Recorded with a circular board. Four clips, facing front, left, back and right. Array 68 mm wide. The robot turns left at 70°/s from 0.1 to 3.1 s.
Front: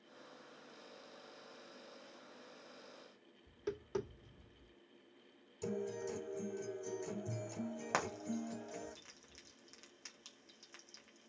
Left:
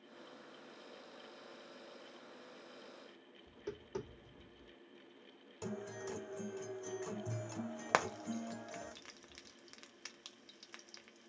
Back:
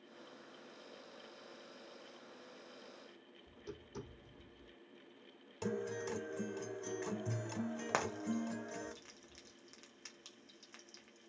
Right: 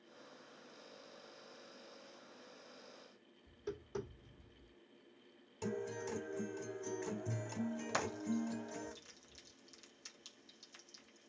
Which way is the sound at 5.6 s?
Straight behind.